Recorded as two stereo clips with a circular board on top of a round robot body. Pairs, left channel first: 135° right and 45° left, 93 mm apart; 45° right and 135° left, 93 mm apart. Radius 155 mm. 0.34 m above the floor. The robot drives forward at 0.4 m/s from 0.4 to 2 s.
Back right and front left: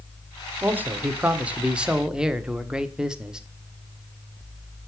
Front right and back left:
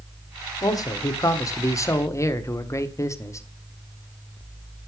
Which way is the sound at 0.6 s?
20° right.